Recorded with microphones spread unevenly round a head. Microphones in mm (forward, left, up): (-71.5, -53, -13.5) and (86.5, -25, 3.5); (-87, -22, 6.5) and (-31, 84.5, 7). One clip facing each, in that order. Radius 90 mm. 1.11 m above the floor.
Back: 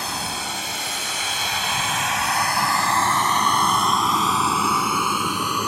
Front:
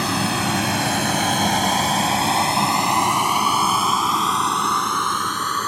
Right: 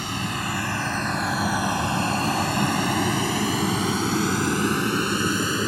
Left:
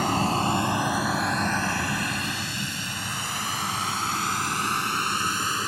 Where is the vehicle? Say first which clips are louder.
Front 8 dB, left 6 dB; 5° right; by 5.7 s 90° right.